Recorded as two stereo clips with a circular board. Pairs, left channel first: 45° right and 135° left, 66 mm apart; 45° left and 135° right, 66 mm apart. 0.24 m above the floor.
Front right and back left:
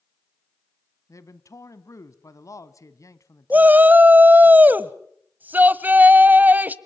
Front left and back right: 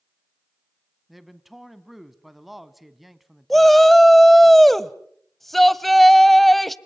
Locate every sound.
1.1 s a man speaking: 50° right, 1.6 m
3.5 s a shout: 130° left, 1.0 m